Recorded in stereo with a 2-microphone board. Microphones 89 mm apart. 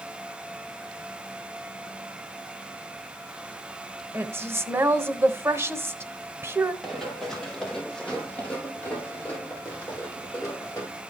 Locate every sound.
4.1 s a woman speaking: 25° right (ahead or behind), 1.1 m
6.8 s running footsteps: centre (ahead or behind), 4.5 m; by 11.0 s 30° left (ahead or behind), 7 m